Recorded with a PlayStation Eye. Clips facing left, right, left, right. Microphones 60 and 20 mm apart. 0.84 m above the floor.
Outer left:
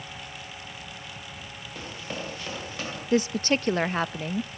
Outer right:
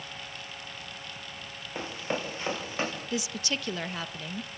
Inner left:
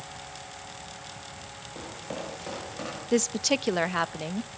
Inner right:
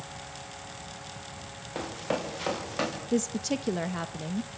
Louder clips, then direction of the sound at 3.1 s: Outer left 9 dB, inner left 6 dB; 45° left (ahead or behind).